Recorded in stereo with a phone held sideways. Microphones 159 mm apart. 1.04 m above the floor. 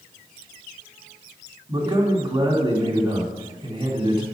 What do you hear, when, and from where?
1.7 s a man speaking: 25° right (ahead or behind), 2.5 m